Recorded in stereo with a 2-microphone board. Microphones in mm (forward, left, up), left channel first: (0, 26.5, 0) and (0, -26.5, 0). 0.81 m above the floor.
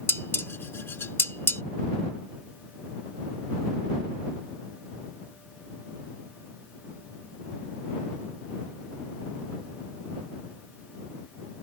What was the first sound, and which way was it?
Dishes clattering, 50° left (ahead or behind).